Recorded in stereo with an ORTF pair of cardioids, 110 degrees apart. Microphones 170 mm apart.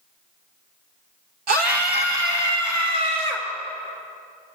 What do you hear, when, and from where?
1.5 s a scream: 65° right, 1.0 m; by 3.5 s 70° right, 3 m